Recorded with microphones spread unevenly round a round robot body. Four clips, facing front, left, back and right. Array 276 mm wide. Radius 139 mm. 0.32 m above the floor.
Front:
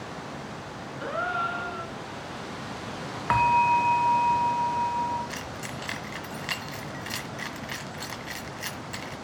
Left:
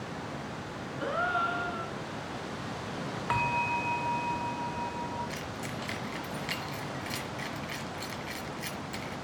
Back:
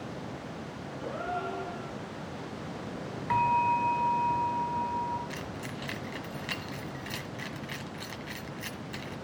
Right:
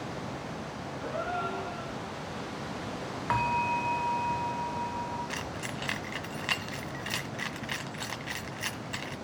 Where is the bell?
Straight ahead, 0.6 m.